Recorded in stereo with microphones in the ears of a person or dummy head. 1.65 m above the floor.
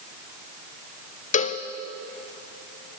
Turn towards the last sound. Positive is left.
turn(degrees=35)  # may be behind; listen again after turning